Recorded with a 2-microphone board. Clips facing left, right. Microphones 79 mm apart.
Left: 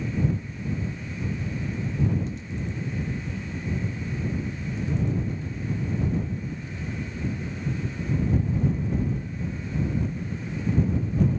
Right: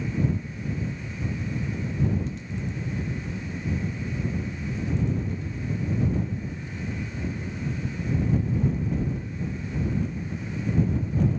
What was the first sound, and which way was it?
Only background noise.